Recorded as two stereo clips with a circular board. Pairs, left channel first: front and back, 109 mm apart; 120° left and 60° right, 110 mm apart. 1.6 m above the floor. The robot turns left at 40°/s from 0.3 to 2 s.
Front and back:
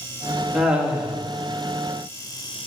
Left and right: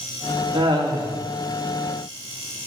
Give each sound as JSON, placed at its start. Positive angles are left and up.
{"t": 0.5, "sound": "laughter", "azimuth_deg": -90, "distance_m": 2.0}